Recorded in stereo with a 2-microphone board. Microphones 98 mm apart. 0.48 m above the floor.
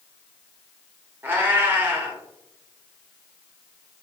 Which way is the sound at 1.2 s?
20° right (ahead or behind).